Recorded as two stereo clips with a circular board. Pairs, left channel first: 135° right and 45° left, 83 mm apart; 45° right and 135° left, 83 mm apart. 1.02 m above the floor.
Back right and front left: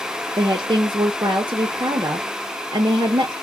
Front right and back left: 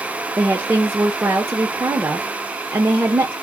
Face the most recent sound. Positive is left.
turn(degrees=70)